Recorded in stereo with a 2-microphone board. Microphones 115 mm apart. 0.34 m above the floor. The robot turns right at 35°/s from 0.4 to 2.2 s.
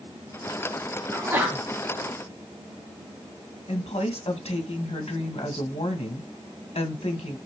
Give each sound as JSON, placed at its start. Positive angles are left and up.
{"t": 1.1, "sound": "a sneeze", "side_deg": -25, "distance_m": 3.0}
{"t": 3.7, "sound": "a woman speaking", "side_deg": 60, "distance_m": 2.0}